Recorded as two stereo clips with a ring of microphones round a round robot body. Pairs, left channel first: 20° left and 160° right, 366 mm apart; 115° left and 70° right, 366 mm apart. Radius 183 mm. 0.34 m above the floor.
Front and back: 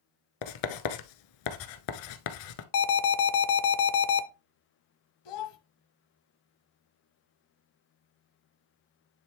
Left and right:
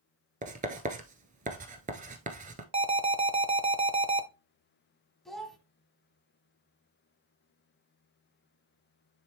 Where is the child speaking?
25° left, 1.3 m.